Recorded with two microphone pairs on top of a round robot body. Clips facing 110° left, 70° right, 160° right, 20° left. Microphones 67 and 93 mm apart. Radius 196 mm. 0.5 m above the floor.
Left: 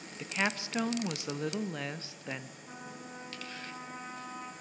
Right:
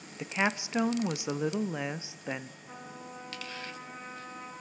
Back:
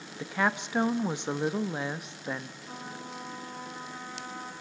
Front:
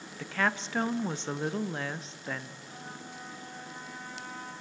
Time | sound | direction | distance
0.2 | a woman speaking | 125° right | 1.1 m
2.6 | a trumpet | 175° left | 9 m